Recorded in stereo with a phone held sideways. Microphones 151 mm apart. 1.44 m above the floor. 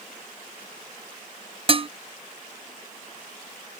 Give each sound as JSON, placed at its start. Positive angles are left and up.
{"t": 1.7, "sound": "dishes clattering", "side_deg": -40}